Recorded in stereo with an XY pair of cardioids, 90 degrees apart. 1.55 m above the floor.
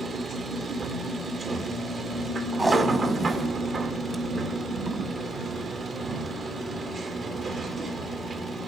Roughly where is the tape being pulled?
Ahead right.